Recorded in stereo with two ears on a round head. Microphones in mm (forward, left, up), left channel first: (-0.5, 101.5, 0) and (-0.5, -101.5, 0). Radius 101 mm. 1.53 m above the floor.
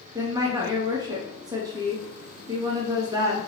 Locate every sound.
0.1 s a woman speaking: 15° right (ahead or behind), 0.7 m